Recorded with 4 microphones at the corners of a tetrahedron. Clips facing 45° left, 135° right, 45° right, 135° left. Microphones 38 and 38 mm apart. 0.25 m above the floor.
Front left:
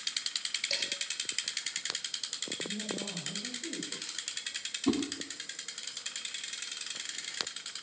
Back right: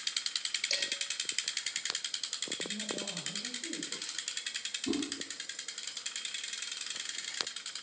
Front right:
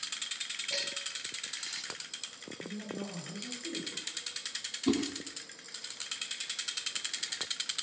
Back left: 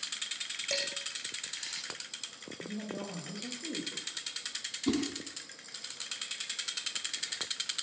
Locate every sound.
0.7 s dishes clattering: 130° left, 8.5 m
2.6 s a woman speaking: 130° left, 7.5 m
4.9 s a whoosh: 35° left, 2.5 m